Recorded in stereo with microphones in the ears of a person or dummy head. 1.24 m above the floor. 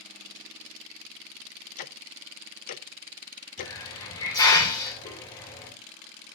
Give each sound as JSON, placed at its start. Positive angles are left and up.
{"t": 1.8, "sound": "ticking", "side_deg": 40, "distance_m": 0.6}
{"t": 3.6, "sound": "a hiss", "side_deg": 15, "distance_m": 2.5}